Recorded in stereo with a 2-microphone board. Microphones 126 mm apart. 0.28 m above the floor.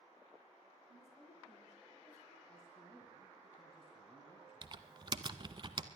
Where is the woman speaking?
65° left (ahead or behind), 7 m.